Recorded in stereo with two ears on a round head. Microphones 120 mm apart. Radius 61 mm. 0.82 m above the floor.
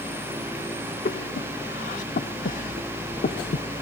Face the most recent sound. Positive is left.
turn(degrees=65)  # may be behind; listen again after turning